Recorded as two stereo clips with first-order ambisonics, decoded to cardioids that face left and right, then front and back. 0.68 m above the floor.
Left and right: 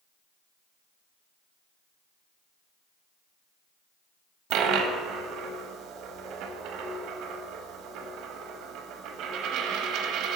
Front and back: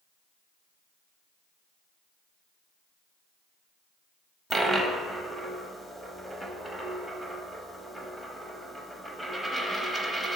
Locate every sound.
4.5 s a dropped coin: 90° right, 0.6 m